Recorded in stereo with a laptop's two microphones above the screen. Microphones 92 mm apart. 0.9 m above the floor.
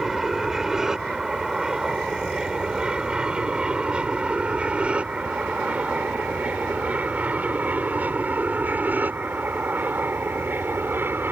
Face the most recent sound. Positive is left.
turn(degrees=-20)  # may be behind; listen again after turning